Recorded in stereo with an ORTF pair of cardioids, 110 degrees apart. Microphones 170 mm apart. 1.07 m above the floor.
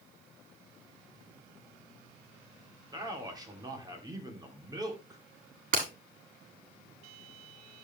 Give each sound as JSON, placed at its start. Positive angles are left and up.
{"t": 2.9, "sound": "a man speaking", "azimuth_deg": -20, "distance_m": 2.5}
{"t": 5.7, "sound": "breaking glass", "azimuth_deg": -55, "distance_m": 6.0}